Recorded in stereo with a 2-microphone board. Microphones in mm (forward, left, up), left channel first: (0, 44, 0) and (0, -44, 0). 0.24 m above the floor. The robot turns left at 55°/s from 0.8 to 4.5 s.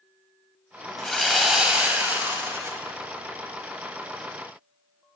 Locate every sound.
1.0 s sawing: 5° left (ahead or behind), 1.2 m; by 2.8 s 25° right (ahead or behind), 1.2 m